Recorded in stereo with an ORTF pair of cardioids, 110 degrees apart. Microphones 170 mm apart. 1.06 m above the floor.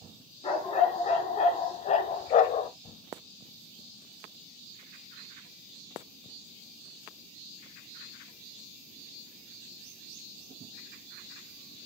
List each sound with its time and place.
0.4 s a dog barking: 35° left, 3 m; by 2.7 s 75° left, 1.0 m